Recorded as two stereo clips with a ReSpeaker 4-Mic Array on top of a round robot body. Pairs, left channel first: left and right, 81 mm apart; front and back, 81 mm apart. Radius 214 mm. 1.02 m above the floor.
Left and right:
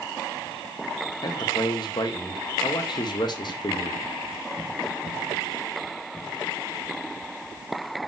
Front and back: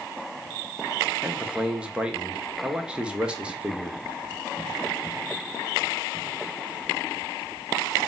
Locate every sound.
1.2 s a man speaking: 105° left, 0.8 m